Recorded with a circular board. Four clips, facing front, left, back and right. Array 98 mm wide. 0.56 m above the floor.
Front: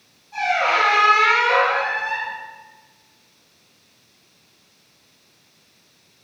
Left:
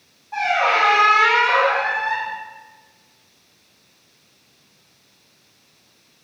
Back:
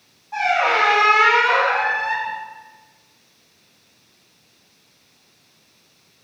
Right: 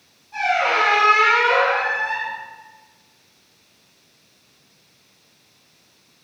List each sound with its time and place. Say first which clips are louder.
0.3 s a squeak: left 1 dB, back 1 dB; 135° left, 1.2 m